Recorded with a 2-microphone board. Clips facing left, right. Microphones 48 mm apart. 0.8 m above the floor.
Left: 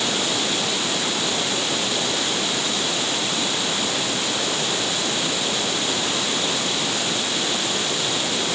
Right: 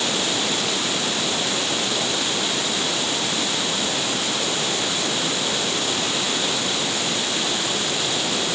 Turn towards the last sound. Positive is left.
No sound to turn to.